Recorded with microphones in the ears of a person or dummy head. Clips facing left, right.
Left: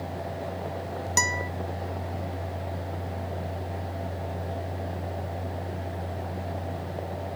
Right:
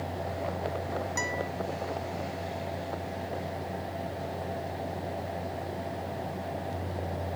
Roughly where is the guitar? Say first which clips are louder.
Left 1 dB; left.